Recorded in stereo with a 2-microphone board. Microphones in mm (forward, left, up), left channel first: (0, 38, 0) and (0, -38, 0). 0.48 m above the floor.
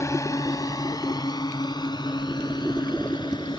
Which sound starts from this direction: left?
A drone, at 0.0 s.